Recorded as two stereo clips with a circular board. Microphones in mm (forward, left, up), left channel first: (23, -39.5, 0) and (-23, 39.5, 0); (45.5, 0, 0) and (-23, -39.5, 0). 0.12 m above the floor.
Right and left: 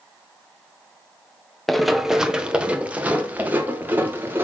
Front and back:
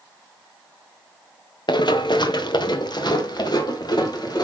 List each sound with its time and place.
1.7 s running footsteps: 30° left, 1.1 m; by 4.4 s 55° left, 3 m